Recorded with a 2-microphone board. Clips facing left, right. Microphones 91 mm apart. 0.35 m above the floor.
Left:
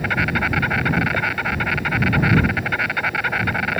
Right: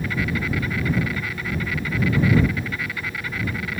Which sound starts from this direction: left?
An insect, at 0.0 s.